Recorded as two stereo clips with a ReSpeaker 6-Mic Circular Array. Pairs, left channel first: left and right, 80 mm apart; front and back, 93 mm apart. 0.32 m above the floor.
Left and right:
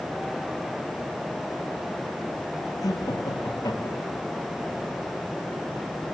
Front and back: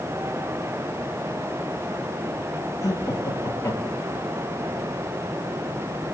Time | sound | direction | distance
2.8 | laughter | 50° left | 8.5 m